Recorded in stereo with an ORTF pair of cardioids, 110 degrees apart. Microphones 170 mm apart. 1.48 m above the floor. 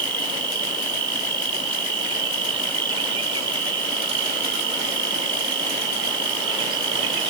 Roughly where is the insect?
Ahead right.